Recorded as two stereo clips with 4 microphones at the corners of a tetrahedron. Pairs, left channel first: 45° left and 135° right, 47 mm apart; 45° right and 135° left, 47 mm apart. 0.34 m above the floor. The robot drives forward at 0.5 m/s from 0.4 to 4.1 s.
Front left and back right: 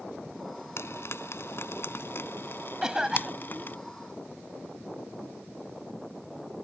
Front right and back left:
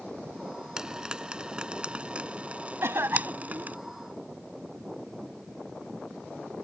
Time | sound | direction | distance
0.8 | frying | 60° left | ?
2.8 | a cough | 145° left | ?